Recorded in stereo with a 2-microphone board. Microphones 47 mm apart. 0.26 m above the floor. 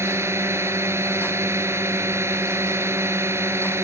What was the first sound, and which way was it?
A drone, 70° right (ahead or behind).